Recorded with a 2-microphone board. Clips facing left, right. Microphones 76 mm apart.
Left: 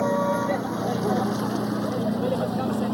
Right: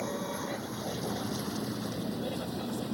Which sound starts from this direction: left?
A vehicle, at 0.0 s.